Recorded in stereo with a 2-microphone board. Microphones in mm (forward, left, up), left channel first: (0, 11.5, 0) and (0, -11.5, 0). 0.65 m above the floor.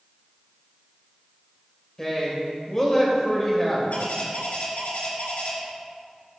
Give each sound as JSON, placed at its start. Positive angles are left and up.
{"t": 2.0, "sound": "a woman speaking", "side_deg": 20, "distance_m": 2.5}
{"t": 3.9, "sound": "a bird", "side_deg": 80, "distance_m": 3.0}